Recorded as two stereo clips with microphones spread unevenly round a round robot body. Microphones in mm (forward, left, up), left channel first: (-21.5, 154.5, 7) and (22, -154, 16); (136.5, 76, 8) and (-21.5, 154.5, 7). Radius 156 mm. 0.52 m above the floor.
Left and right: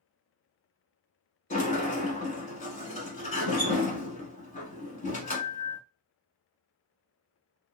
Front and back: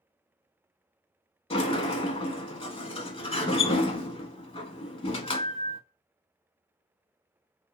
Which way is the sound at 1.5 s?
30° left.